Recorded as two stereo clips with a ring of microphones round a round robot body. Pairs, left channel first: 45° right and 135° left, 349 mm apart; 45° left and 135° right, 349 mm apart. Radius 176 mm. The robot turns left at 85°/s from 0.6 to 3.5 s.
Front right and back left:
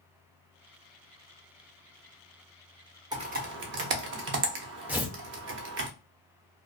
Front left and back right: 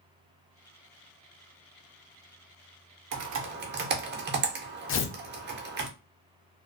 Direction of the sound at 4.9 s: 55° left.